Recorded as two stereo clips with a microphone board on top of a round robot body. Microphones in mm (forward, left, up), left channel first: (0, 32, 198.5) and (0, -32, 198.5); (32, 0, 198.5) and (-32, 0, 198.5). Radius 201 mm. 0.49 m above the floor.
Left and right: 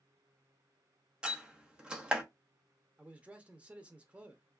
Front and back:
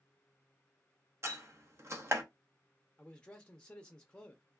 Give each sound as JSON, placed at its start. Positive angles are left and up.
{"t": 1.2, "sound": "a door slam", "azimuth_deg": -160, "distance_m": 1.1}
{"t": 3.0, "sound": "a man speaking", "azimuth_deg": -50, "distance_m": 0.8}